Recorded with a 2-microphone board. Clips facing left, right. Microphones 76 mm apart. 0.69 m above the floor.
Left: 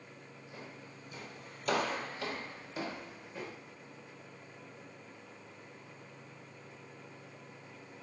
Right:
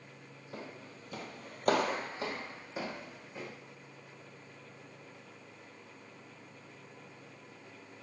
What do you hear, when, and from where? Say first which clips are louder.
0.5 s footsteps: right 5 dB; 55° right (ahead or behind), 1.8 m; by 3.5 s centre (ahead or behind), 3 m